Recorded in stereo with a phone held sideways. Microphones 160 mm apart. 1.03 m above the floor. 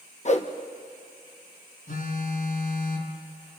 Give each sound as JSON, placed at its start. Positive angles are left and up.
{"t": 0.2, "sound": "a whoosh", "side_deg": 45, "distance_m": 1.2}
{"t": 1.9, "sound": "a phone buzzing", "side_deg": 60, "distance_m": 2.5}